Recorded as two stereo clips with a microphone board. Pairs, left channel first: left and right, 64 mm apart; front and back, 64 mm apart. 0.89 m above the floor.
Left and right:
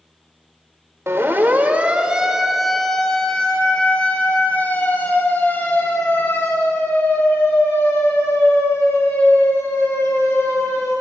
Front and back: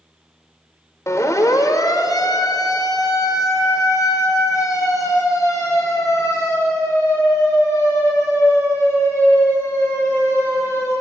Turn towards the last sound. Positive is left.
turn(degrees=45)